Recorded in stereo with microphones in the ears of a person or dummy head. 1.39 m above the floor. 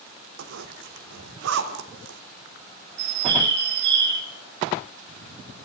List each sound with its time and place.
0.4 s a zipper: 75° right (ahead or behind), 3 m
3.0 s a bird: 65° right (ahead or behind), 3 m